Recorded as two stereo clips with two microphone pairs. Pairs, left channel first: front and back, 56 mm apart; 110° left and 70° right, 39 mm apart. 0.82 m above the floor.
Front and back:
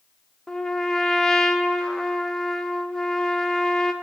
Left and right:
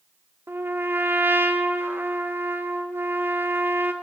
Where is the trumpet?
75° right, 1.3 m.